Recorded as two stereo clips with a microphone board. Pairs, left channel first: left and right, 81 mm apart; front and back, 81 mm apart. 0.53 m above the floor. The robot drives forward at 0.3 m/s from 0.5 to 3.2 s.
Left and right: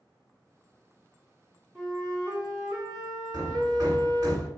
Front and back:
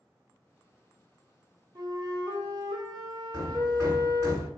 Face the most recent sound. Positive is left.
turn(degrees=-130)